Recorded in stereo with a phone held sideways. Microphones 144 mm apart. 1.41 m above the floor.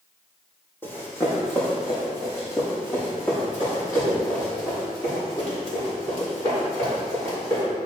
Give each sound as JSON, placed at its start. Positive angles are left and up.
{"t": 0.8, "sound": "running footsteps", "side_deg": 15, "distance_m": 3.0}